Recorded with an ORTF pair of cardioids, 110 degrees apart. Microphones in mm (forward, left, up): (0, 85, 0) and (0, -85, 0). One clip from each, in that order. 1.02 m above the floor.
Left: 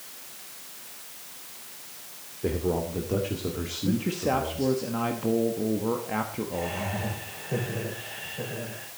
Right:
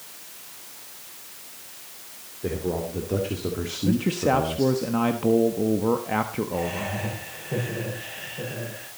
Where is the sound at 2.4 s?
10° left, 2.5 m; by 4.8 s 50° right, 2 m.